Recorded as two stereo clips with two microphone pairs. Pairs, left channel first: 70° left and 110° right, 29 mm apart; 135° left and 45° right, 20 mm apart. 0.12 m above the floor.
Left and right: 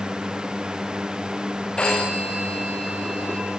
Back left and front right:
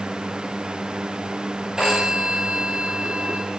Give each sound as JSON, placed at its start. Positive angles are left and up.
{"t": 1.8, "sound": "a phone ringing", "azimuth_deg": 10, "distance_m": 8.0}